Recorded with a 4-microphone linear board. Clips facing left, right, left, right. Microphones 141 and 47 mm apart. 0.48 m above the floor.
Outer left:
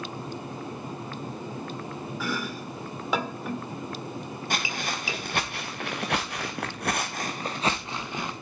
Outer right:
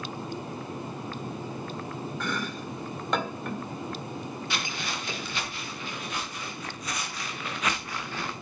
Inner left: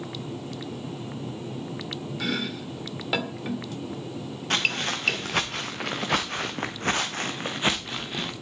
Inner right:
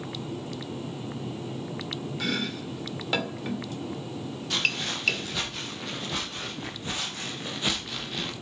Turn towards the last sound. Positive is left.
turn(degrees=15)  # may be behind; listen again after turning